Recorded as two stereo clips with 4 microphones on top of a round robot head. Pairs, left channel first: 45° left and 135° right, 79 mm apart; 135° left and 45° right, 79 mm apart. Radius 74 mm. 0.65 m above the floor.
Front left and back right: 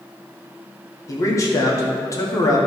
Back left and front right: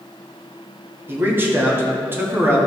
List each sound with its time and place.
1.1 s a man speaking: 10° left, 1.6 m